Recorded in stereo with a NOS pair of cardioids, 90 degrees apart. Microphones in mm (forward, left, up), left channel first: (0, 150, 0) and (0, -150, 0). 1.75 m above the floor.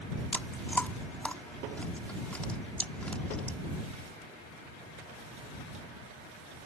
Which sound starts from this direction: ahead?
Chewing, at 0.3 s.